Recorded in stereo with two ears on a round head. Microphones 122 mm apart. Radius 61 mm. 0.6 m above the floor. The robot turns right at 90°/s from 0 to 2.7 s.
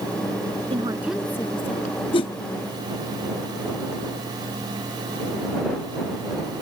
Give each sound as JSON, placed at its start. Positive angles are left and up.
{"t": 0.7, "sound": "a woman speaking", "azimuth_deg": -40}
{"t": 2.1, "sound": "a whoosh", "side_deg": 35}